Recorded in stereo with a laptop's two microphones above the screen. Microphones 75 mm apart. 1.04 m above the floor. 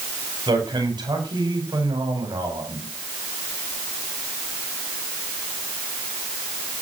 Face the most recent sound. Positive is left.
turn(degrees=-80)